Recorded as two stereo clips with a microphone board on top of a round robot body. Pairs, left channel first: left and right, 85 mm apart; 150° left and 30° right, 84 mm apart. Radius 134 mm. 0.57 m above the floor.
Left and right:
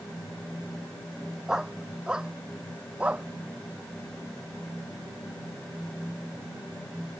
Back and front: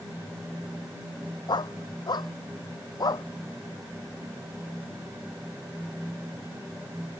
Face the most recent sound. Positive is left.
turn(degrees=-165)